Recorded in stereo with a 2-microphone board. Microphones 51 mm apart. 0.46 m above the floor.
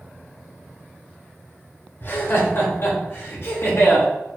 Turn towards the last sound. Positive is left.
turn(degrees=55)  # may be behind; listen again after turning